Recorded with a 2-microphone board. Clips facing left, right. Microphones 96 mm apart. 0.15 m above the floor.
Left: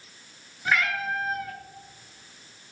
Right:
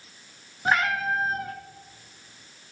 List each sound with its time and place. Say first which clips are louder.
0.7 s a cat meowing: right 3 dB; 35° right (ahead or behind), 1.2 m